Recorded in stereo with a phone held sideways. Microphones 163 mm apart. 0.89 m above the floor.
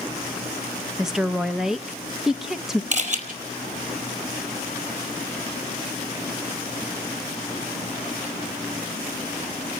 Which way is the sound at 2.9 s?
50° right (ahead or behind).